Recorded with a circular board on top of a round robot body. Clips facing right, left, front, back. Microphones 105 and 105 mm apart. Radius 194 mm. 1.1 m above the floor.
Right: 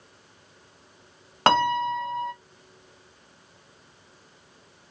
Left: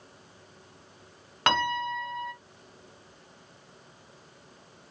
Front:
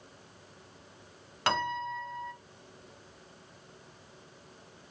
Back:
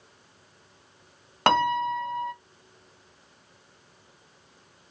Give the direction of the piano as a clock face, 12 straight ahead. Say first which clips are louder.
Right 6 dB, back 9 dB; 5 o'clock.